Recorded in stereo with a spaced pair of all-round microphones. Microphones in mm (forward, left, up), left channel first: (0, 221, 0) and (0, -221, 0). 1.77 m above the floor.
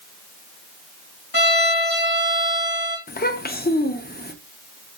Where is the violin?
50° left (ahead or behind), 1.4 m.